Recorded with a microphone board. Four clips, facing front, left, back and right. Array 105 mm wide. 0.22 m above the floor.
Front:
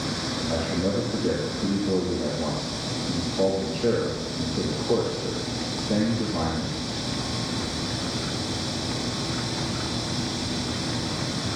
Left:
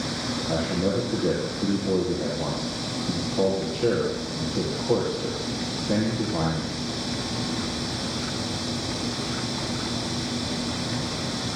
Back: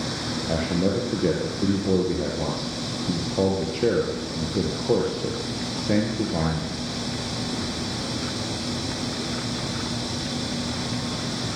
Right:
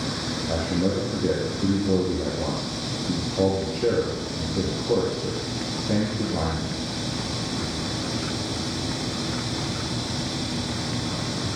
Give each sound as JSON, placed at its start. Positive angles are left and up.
{"t": 0.5, "sound": "a man speaking", "azimuth_deg": -175, "distance_m": 5.0}